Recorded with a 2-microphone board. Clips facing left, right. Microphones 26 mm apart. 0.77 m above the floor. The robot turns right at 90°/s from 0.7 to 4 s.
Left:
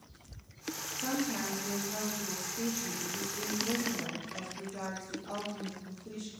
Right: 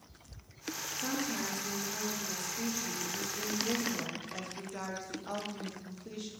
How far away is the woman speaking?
About 0.5 m.